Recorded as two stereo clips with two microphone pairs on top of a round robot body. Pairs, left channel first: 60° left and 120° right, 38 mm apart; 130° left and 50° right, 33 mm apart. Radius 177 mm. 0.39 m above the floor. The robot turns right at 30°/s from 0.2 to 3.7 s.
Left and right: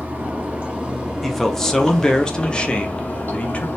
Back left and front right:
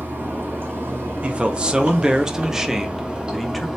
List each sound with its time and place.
0.0 s running water: 75° right, 1.4 m; by 3.8 s 30° left, 1.4 m
1.2 s a man speaking: 25° right, 1.0 m; by 3.7 s 50° left, 1.0 m